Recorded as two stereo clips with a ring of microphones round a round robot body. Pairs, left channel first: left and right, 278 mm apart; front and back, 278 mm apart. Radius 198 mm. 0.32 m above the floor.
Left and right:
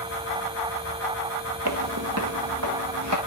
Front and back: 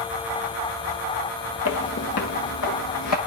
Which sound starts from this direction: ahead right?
Footsteps, at 1.6 s.